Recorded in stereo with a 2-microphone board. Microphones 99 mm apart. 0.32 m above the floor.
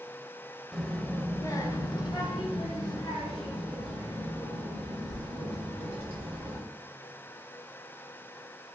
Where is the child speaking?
Centre (ahead or behind), 0.7 m; by 6.6 s 70° left (ahead or behind), 3 m.